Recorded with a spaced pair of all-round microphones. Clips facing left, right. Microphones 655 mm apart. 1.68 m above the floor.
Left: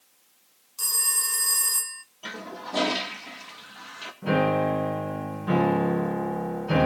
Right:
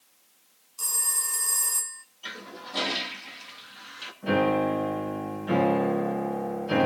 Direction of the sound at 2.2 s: 75° left (ahead or behind).